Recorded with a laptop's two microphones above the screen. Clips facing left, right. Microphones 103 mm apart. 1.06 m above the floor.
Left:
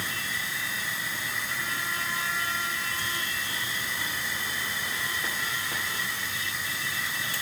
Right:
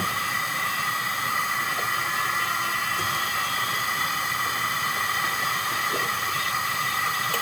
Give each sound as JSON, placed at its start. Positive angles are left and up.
{"t": 0.0, "sound": "a machine running", "side_deg": -70}